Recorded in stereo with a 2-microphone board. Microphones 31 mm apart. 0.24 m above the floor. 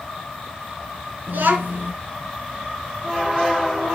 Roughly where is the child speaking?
Right.